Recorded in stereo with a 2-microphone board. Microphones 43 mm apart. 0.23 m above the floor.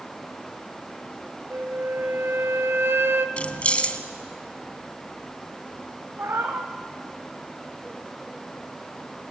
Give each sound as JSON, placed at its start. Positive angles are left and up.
{"t": 1.5, "sound": "a flute", "side_deg": -60, "distance_m": 1.1}
{"t": 3.4, "sound": "keys jangling", "side_deg": 30, "distance_m": 1.1}
{"t": 6.2, "sound": "a cat meowing", "side_deg": -65, "distance_m": 2.5}